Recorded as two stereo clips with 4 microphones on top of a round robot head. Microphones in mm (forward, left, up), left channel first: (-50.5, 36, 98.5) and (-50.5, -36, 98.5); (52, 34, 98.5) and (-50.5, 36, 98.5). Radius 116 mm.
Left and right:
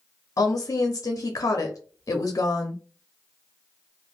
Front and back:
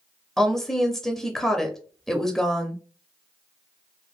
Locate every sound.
0.4 s a woman speaking: 85° left, 0.7 m